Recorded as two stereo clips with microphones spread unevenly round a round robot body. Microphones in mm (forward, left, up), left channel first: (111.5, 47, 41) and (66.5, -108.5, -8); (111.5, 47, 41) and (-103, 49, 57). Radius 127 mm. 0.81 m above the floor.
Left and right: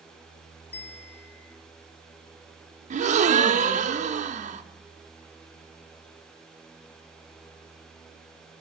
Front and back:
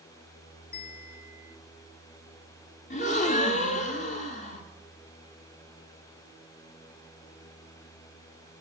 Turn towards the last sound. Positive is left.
turn(degrees=-60)